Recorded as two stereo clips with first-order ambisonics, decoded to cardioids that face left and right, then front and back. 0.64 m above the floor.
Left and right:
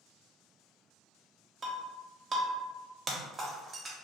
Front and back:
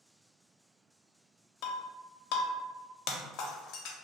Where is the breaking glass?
15° right, 0.5 m.